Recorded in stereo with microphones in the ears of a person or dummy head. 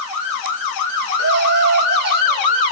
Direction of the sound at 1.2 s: 60° right (ahead or behind).